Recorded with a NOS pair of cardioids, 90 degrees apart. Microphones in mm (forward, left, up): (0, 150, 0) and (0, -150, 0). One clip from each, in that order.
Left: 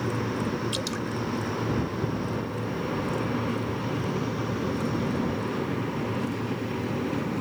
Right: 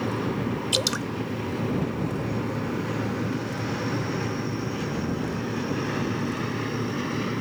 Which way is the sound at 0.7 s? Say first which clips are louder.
Right 6 dB; 50° right.